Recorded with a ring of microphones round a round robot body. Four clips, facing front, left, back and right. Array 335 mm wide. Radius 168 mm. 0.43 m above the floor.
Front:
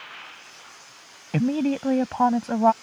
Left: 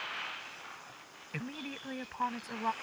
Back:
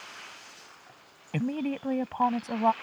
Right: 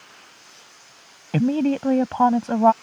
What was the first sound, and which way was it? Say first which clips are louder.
A woman speaking: right 22 dB, front 7 dB; 65° right.